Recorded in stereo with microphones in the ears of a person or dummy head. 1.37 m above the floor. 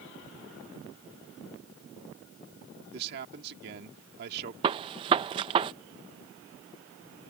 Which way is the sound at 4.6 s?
30° right (ahead or behind).